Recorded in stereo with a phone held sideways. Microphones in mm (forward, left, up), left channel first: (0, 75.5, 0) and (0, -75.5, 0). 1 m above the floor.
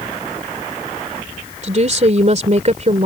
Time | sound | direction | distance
1.6 | a woman speaking | 50° right (ahead or behind) | ?